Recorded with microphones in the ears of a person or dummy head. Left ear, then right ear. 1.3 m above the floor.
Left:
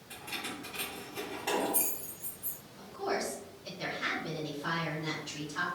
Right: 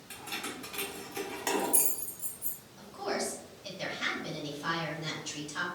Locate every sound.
0.1 s keys jangling: 30° right (ahead or behind), 1.2 m; by 2.6 s 65° right (ahead or behind), 1.1 m
2.8 s a woman speaking: 60° right (ahead or behind), 1.1 m